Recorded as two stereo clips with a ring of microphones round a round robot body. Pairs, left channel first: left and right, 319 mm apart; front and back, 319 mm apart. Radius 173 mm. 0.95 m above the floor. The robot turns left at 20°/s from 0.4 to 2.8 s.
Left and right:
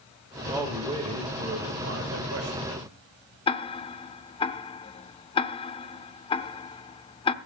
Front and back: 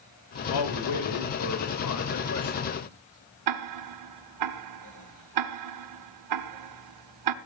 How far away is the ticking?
About 0.9 m.